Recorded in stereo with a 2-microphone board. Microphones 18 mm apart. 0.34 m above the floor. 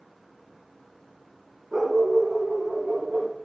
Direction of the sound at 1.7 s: 15° right (ahead or behind).